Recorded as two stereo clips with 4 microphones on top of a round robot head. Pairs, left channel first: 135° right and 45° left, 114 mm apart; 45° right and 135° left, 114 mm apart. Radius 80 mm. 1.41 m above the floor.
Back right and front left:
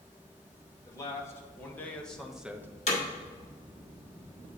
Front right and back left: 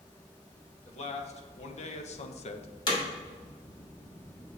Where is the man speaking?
70° right, 1.6 m; by 2.7 s 25° right, 0.7 m.